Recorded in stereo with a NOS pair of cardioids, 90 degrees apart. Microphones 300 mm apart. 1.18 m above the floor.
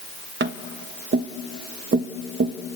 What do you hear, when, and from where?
0.4 s tapping: 40° right, 1.3 m